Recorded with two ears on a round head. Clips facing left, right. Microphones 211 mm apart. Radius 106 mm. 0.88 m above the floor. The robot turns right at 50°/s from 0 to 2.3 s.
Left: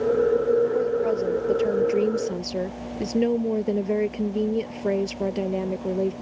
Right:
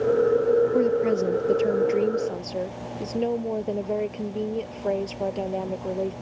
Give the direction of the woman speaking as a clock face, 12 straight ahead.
2 o'clock.